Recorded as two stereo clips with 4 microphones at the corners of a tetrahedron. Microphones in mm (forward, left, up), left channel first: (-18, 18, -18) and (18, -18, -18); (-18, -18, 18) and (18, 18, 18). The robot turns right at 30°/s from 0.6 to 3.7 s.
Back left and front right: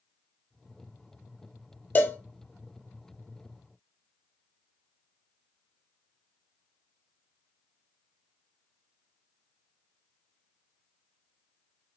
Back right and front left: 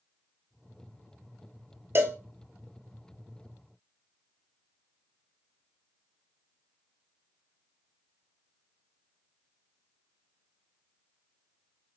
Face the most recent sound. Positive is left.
turn(degrees=135)